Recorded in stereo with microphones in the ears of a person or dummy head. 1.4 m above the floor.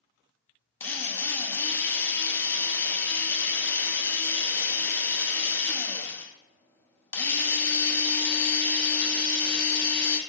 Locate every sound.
0.8 s a drill: 10° left (ahead or behind), 0.7 m